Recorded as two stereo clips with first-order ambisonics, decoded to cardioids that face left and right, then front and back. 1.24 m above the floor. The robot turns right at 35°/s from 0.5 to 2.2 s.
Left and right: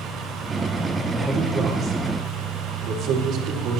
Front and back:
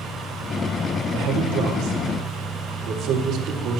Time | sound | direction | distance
1.1 | a man speaking | 175° right | 2.5 m